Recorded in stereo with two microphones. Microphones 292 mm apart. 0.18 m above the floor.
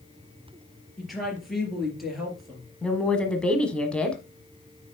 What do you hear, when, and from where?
1.0 s a woman speaking: centre (ahead or behind), 3.5 m
2.8 s a woman speaking: 5° left (ahead or behind), 1.1 m